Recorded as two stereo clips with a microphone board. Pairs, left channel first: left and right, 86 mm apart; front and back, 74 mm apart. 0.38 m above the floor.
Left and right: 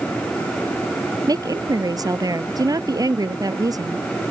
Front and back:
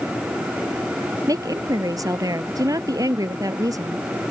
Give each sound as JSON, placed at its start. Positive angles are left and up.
{"t": 1.3, "sound": "a woman speaking", "azimuth_deg": -140}